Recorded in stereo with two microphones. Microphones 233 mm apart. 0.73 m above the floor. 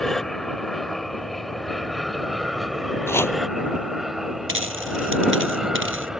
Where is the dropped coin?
60° right (ahead or behind).